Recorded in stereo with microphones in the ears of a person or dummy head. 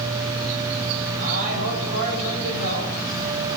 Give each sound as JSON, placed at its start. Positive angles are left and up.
{"t": 1.2, "sound": "a man speaking", "side_deg": -45, "distance_m": 6.5}